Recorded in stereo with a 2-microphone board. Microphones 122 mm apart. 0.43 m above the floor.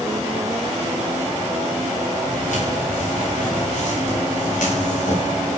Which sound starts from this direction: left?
Footsteps, at 2.3 s.